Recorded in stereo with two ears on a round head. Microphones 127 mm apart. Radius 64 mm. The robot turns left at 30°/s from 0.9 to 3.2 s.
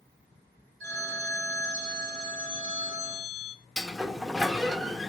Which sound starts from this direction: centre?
A sliding door, at 3.8 s.